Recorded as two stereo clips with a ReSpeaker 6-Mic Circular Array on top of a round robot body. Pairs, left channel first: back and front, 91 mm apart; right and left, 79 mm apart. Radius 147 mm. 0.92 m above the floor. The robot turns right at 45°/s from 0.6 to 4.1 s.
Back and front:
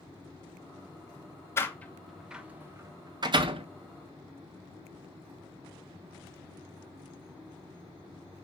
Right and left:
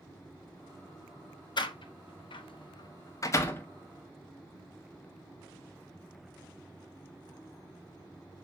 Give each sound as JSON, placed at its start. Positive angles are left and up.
{"t": 1.6, "sound": "a door slam", "azimuth_deg": -115, "distance_m": 1.1}